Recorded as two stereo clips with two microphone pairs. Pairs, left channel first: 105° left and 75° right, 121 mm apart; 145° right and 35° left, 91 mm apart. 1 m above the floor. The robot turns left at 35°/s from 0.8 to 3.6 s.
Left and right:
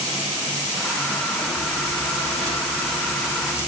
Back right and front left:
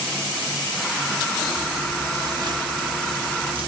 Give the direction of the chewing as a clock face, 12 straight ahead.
8 o'clock.